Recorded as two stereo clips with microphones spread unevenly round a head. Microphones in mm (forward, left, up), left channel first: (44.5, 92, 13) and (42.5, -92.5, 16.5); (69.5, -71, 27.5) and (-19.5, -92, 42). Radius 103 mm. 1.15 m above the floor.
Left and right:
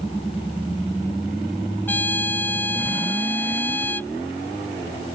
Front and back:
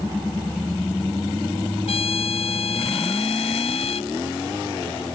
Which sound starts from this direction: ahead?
A trumpet, at 1.9 s.